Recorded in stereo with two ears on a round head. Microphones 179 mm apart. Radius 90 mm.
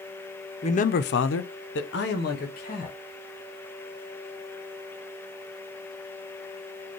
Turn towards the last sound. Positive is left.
turn(degrees=40)  # may be behind; listen again after turning